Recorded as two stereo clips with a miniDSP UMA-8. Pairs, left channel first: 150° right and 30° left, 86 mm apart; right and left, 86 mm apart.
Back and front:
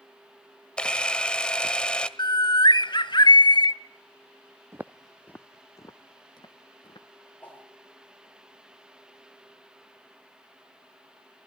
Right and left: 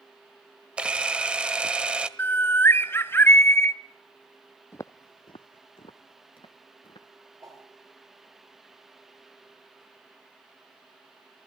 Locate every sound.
0.8 s a camera shutter: 145° left, 1.2 m
2.2 s a bird: 150° right, 0.7 m
4.7 s footsteps: 30° right, 0.6 m; by 7.1 s 115° right, 2.5 m
7.4 s a whoosh: 135° left, 6.5 m